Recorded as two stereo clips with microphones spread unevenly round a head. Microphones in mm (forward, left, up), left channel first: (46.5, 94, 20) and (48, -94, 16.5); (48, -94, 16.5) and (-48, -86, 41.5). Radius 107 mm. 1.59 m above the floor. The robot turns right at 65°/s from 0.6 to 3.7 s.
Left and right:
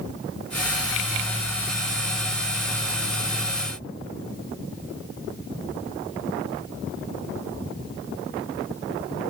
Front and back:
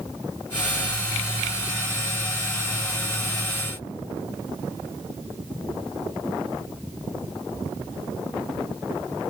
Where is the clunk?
No clunk in this recording.